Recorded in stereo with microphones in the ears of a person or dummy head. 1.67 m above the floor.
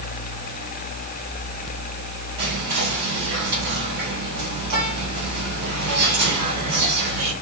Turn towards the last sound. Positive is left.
turn(degrees=-45)  # may be behind; listen again after turning